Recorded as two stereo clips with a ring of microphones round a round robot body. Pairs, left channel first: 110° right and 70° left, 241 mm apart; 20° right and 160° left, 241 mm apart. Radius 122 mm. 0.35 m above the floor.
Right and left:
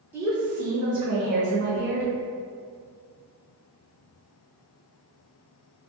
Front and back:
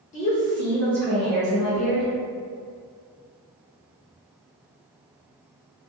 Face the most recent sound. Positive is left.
turn(degrees=75)